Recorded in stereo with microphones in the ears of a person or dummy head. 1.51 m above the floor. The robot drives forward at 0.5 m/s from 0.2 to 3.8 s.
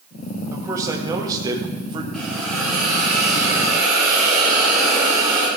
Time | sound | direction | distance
0.5 | a man speaking | 15° right (ahead or behind) | 2 m
2.1 | a hiss | centre (ahead or behind) | 4 m